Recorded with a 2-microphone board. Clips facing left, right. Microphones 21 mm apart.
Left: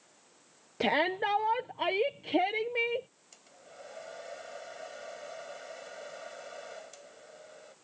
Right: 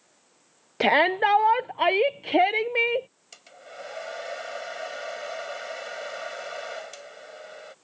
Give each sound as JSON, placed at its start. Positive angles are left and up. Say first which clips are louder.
{"t": 0.8, "sound": "a shout", "louder": "right 8 dB", "side_deg": -40}
{"t": 3.3, "sound": "a hair dryer", "louder": "right 10 dB", "side_deg": -45}